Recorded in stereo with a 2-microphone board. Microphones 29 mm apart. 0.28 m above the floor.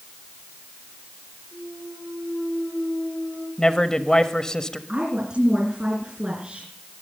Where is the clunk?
80° right, 9 m.